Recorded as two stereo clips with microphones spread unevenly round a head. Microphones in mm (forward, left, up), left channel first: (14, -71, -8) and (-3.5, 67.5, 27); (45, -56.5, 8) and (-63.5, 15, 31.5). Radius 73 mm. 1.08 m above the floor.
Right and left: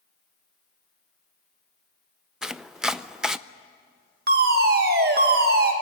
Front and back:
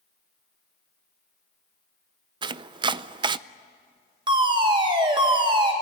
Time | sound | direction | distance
2.4 | chopping | 165° right | 0.5 m
4.3 | a fire alarm | 85° left | 2.5 m